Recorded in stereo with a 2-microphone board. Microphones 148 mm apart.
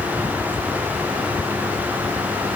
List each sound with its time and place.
Only background noise.